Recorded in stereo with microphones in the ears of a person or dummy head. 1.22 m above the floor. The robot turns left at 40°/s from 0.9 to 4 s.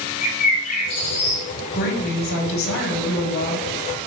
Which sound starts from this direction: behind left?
A woman speaking, at 1.7 s.